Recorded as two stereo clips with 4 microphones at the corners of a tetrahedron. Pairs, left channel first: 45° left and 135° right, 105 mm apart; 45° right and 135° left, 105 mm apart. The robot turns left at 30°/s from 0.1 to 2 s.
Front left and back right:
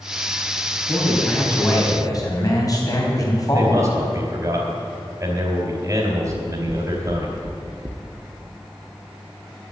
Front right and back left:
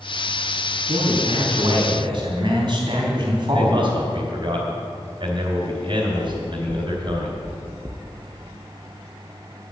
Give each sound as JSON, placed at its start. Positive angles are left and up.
{"t": 0.9, "sound": "a man speaking", "azimuth_deg": 130, "distance_m": 3.5}
{"t": 3.5, "sound": "a man speaking", "azimuth_deg": 170, "distance_m": 2.5}
{"t": 6.3, "sound": "knocking", "azimuth_deg": -175, "distance_m": 0.8}